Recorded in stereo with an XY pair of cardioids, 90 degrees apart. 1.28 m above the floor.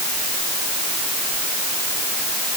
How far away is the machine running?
I don't hear a machine running.